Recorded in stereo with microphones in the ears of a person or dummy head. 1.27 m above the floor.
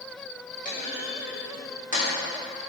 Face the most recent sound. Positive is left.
turn(degrees=50)  # may be behind; listen again after turning